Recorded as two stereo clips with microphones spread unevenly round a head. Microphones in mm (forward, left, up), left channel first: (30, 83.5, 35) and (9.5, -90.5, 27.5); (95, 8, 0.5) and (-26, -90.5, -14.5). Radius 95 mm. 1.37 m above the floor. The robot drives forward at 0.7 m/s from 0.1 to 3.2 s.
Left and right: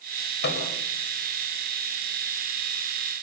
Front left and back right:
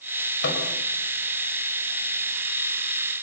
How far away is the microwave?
About 5.5 m.